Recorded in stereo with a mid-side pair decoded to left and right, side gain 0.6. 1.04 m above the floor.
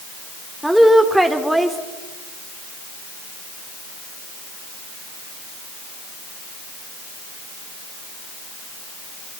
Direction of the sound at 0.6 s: 5° right.